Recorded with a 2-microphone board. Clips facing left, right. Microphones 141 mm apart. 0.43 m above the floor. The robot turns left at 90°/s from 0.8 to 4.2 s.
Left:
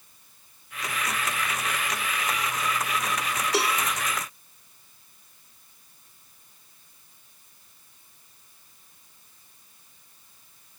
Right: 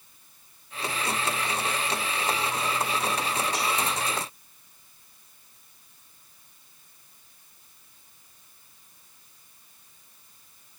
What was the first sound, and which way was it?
A cowbell, 80° left.